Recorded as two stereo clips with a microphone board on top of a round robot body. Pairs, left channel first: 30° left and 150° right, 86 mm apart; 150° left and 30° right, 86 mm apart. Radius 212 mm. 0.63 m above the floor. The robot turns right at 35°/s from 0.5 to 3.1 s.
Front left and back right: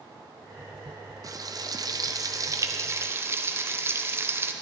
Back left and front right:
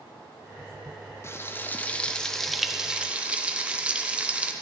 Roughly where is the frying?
Behind.